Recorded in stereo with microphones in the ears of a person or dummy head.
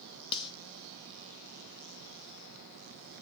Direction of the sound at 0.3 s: 30° left (ahead or behind).